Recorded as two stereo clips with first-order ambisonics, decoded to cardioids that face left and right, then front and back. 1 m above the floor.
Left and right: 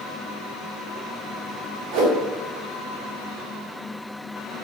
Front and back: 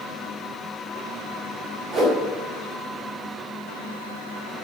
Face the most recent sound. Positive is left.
turn(degrees=-115)